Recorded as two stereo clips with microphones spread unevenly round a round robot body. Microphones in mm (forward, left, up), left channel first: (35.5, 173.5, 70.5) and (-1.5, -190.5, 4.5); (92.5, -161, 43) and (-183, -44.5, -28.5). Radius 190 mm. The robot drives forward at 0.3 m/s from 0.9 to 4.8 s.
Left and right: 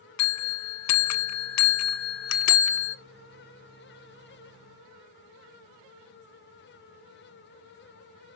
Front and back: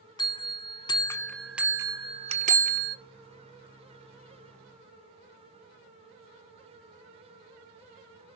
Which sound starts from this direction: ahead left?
A bell, at 0.2 s.